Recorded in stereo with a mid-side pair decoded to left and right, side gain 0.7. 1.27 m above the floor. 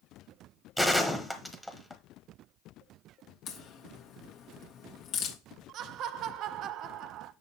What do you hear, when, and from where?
0.8 s a gunshot: straight ahead, 1.2 m
3.5 s a crack: 55° left, 1.5 m
5.7 s laughter: 55° right, 0.6 m